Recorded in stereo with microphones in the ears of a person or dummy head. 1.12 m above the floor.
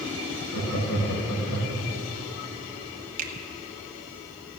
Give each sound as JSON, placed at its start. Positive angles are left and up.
{"t": 0.5, "sound": "laughter", "side_deg": 85, "distance_m": 5.0}
{"t": 3.2, "sound": "a finger snap", "side_deg": -50, "distance_m": 1.5}